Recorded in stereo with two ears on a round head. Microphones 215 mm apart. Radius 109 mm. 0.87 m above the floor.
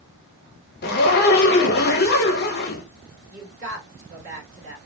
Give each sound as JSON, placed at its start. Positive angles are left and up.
{"t": 0.8, "sound": "a zipper", "side_deg": 40, "distance_m": 0.7}
{"t": 3.3, "sound": "a woman speaking", "side_deg": -50, "distance_m": 2.5}